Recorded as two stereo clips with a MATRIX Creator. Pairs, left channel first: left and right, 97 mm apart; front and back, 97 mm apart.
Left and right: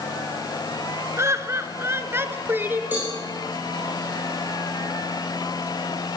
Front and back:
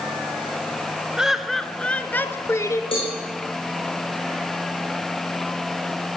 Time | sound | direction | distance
1.2 | laughter | 105° right | 1.5 m
2.9 | a cowbell | 20° right | 7 m